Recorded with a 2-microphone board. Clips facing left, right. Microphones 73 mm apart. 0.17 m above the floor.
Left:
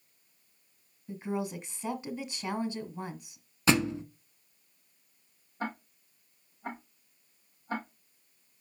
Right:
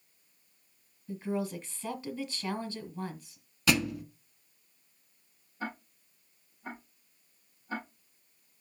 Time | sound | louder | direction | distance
1.1 | a woman speaking | right 1 dB | 20° left (ahead or behind) | 1.4 m
3.7 | a thud | left 2 dB | 30° left (ahead or behind) | 0.8 m
5.6 | ticking | left 2 dB | 50° left (ahead or behind) | 4.5 m